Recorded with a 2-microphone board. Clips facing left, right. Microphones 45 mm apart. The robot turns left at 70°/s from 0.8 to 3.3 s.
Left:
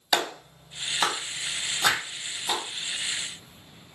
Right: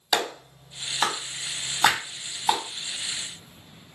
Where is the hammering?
65° right (ahead or behind), 1.4 m; by 2.0 s 55° right (ahead or behind), 1.4 m.